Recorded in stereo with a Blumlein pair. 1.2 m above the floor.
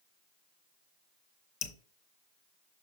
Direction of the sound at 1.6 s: 35° left.